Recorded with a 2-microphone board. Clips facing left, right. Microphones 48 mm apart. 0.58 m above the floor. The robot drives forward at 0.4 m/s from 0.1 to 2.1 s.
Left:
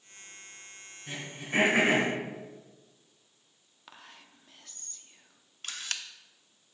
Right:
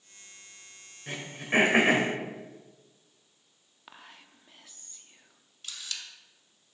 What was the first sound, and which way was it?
Throat clearing, 60° right (ahead or behind).